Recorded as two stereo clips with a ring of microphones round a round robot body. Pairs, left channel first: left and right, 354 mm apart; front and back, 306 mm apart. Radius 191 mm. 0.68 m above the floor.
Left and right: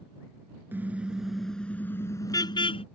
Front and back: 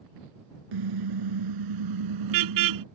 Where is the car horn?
175° right; by 2.9 s 165° left.